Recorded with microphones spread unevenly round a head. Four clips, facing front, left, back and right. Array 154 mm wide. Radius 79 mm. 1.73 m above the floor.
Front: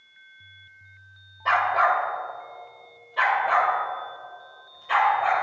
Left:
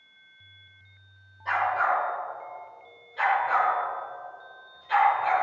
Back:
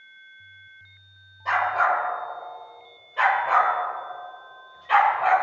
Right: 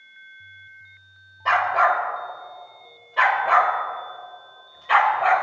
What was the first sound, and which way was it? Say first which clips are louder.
A dog barking: right 6 dB, front 1 dB; 65° right.